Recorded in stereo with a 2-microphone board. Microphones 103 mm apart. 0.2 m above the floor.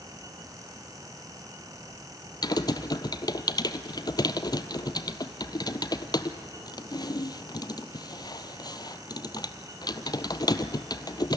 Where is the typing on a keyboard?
40° left (ahead or behind), 0.8 m.